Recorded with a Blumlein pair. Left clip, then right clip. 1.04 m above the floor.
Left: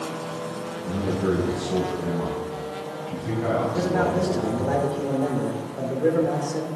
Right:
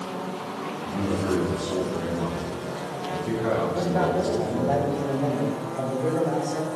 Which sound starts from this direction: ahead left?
A man speaking, at 0.8 s.